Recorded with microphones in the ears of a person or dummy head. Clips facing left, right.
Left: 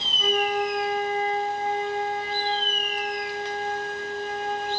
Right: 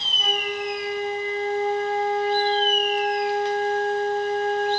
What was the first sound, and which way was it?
A flute, 10° right (ahead or behind).